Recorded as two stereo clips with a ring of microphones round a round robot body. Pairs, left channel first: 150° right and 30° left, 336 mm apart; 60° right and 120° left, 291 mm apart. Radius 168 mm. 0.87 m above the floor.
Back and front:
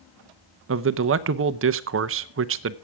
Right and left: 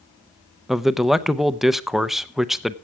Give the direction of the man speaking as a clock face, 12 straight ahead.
11 o'clock.